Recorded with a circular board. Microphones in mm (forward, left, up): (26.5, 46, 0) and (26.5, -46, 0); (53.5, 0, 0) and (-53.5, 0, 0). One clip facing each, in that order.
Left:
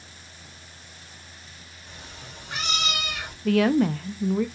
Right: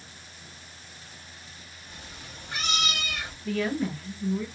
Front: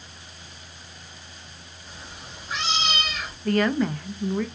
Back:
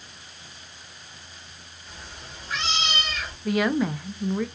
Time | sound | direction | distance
1.9 | a cat meowing | 85° left | 2.5 m
3.5 | a woman speaking | 95° left | 0.5 m